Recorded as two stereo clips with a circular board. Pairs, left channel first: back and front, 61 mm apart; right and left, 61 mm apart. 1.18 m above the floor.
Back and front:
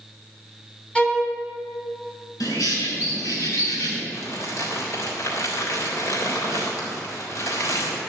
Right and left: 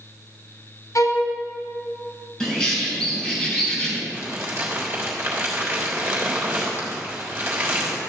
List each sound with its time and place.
0.9 s a violin: 110° right, 2.5 m
2.4 s a bird: 170° right, 4.5 m
4.1 s crumpling: 150° left, 3.5 m